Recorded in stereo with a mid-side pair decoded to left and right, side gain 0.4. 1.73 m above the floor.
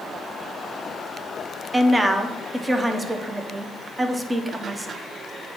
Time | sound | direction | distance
1.7 | a woman speaking | 15° right | 1.0 m